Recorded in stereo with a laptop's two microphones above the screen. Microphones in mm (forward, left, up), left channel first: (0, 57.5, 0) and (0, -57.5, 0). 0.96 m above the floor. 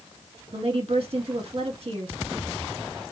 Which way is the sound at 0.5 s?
45° right (ahead or behind).